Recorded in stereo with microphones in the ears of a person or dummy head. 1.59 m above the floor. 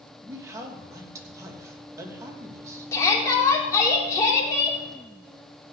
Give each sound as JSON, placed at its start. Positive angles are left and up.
{"t": 0.2, "sound": "a man speaking", "side_deg": -15, "distance_m": 3.0}
{"t": 2.9, "sound": "a shout", "side_deg": 20, "distance_m": 4.5}